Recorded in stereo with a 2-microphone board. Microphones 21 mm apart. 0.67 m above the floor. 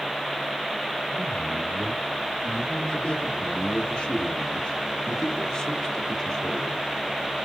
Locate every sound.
1.1 s a man speaking: 70° left (ahead or behind), 3 m; by 6.8 s 20° left (ahead or behind), 1.7 m